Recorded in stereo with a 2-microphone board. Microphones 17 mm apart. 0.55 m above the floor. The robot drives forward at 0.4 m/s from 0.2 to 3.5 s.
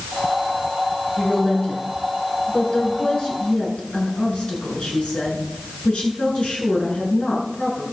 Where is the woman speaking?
75° left (ahead or behind), 8.5 m; by 7.8 s 70° left (ahead or behind), 8.5 m.